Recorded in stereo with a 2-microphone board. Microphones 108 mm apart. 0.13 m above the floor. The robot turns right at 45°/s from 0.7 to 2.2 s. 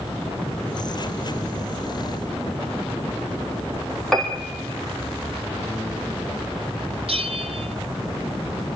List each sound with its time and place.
4.1 s a piano: 5° left (ahead or behind), 4 m
7.1 s a bell: 65° right (ahead or behind), 1.4 m